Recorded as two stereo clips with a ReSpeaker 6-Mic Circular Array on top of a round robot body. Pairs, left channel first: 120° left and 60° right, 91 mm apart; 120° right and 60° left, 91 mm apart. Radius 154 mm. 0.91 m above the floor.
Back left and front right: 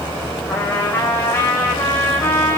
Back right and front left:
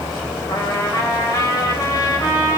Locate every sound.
0.5 s a trumpet: 175° right, 3.5 m